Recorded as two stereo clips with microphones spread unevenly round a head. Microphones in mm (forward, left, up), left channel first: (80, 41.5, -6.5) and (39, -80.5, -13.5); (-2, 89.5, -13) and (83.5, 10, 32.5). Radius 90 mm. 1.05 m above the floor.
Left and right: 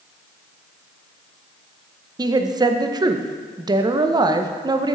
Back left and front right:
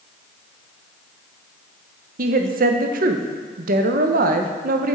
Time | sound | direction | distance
2.2 | a woman speaking | 55° right | 0.6 m